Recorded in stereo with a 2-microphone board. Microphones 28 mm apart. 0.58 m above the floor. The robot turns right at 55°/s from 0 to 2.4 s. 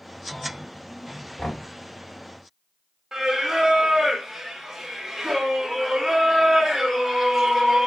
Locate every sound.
1.4 s knocking: 45° left (ahead or behind), 1.8 m; by 1.7 s 30° left (ahead or behind), 1.8 m
3.1 s singing: 15° right (ahead or behind), 0.9 m